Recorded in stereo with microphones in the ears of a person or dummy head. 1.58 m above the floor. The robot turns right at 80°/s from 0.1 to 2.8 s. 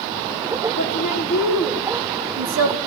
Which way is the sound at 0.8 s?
120° left.